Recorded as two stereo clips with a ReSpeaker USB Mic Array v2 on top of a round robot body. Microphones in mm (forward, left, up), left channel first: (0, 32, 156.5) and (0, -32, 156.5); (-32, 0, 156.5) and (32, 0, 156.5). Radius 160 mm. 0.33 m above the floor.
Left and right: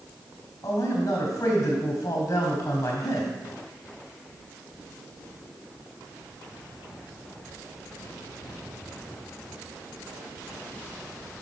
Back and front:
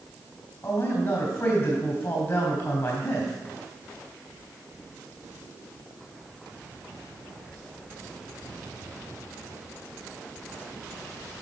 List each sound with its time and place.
0.6 s a man speaking: 135° left, 4 m